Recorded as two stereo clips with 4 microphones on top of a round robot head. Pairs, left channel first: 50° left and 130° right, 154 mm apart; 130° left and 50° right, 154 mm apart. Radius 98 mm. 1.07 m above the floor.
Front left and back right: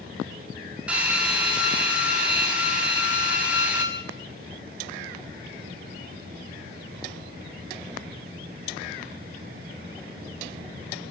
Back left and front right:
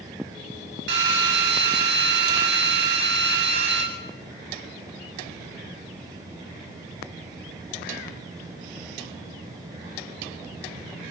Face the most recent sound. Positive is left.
turn(degrees=-45)